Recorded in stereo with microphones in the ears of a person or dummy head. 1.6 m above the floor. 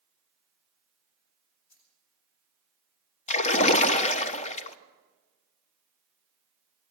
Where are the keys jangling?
85° left, 6.5 m.